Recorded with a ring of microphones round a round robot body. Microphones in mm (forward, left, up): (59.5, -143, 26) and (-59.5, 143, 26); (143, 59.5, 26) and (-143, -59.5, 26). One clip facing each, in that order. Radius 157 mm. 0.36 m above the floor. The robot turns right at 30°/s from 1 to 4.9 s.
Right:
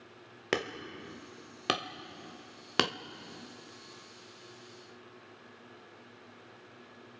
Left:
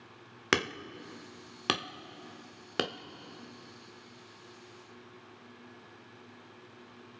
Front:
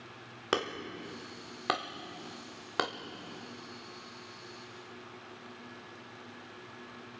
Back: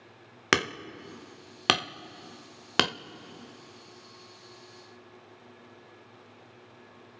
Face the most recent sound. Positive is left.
turn(degrees=-75)